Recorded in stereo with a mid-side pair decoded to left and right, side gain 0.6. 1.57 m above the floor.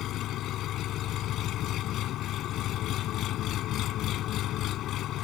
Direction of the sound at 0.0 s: 60° left.